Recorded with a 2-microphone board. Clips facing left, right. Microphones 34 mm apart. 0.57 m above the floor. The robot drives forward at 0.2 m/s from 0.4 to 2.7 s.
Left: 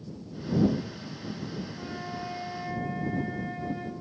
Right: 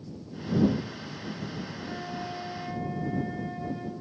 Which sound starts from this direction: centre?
A flute, at 1.8 s.